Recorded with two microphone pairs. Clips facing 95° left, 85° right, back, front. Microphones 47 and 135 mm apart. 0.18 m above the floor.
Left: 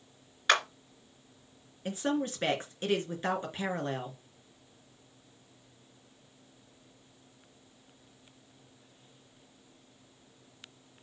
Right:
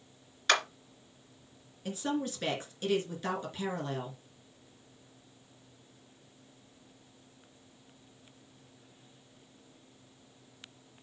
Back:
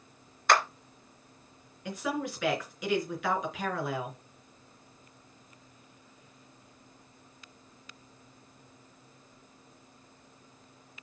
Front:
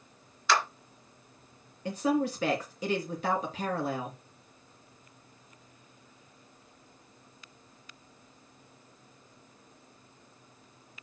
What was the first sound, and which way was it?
A clap, 170° left.